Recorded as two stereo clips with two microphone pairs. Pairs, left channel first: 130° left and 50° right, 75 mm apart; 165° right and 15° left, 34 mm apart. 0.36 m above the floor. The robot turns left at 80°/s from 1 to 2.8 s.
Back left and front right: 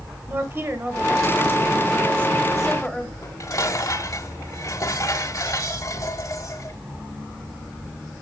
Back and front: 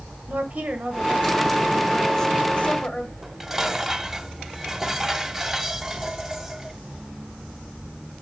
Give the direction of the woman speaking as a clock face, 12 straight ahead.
12 o'clock.